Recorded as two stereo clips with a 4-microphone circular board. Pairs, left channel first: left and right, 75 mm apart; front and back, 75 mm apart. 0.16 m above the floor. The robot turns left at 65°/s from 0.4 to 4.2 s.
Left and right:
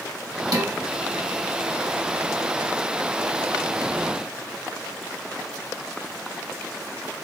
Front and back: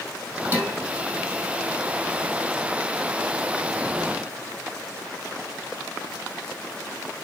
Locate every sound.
0.5 s dishes clattering: 120° right, 3.5 m; by 0.8 s 135° right, 3.5 m